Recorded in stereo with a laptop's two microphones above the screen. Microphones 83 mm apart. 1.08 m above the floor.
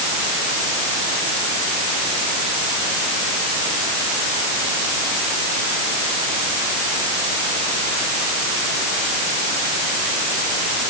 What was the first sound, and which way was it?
Only background noise.